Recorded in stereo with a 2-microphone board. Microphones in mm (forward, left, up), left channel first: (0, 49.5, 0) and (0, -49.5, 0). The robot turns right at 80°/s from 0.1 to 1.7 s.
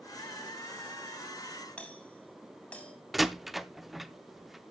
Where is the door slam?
Centre (ahead or behind), 0.5 m.